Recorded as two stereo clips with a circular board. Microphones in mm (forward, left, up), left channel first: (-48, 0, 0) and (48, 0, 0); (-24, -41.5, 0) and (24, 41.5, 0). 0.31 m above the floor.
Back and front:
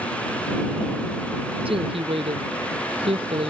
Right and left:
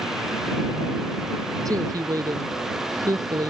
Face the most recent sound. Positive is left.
turn(degrees=10)